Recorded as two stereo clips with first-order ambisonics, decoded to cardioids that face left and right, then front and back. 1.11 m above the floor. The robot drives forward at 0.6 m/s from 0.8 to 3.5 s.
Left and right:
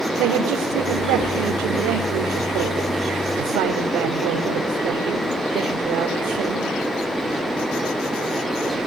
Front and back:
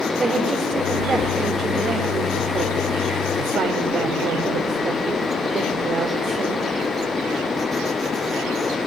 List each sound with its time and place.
0.2 s a man speaking: 105° right, 4 m; by 6.7 s 125° right, 4.5 m